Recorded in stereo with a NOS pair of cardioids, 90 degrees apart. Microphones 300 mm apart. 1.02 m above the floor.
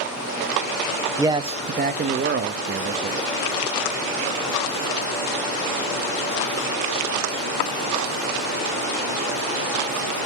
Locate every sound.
1.2 s a man speaking: 10° right, 0.7 m; by 3.2 s 50° right, 1.6 m